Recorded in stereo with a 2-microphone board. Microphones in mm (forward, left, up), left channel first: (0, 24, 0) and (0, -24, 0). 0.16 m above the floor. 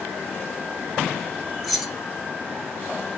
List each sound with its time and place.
1.6 s keys jangling: 5° right (ahead or behind), 0.8 m